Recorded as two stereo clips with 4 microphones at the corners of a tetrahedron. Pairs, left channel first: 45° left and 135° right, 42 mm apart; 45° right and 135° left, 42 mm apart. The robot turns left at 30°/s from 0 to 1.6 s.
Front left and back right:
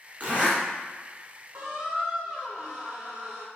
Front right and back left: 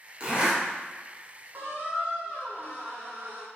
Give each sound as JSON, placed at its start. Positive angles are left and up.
{"t": 0.2, "sound": "a zipper", "azimuth_deg": -165, "distance_m": 1.3}
{"t": 1.5, "sound": "a squeak", "azimuth_deg": 180, "distance_m": 0.9}